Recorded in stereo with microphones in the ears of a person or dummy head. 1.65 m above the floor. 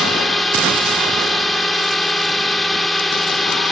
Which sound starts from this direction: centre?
A drone, at 0.0 s.